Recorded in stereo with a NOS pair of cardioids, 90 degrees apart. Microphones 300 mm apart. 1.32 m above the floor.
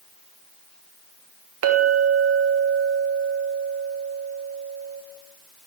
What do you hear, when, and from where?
1.6 s a clink: 50° right, 1.3 m